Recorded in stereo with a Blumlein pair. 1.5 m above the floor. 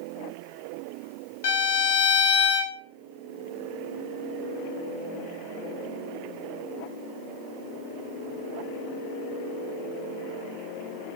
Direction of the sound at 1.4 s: 55° left.